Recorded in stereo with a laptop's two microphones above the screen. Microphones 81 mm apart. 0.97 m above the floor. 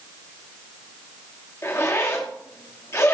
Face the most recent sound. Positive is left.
turn(degrees=40)  # may be behind; listen again after turning